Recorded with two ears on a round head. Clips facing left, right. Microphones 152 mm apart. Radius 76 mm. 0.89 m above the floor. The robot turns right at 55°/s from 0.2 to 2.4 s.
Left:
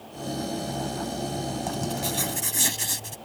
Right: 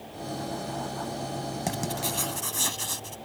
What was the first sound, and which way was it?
Writing, 20° right.